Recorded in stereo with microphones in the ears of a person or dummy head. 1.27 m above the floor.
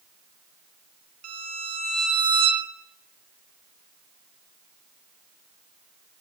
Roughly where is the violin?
Right.